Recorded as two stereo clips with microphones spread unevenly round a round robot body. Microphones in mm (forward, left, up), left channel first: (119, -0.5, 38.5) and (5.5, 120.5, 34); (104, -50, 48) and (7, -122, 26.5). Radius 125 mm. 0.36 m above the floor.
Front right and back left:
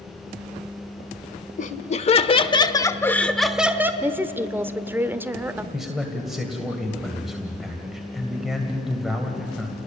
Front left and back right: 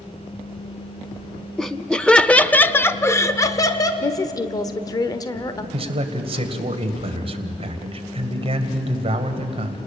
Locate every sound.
1.6 s laughter: 60° right, 1.2 m; by 3.9 s 75° left, 1.0 m
4.0 s a woman speaking: 75° left, 1.0 m
5.7 s a man speaking: 140° right, 2 m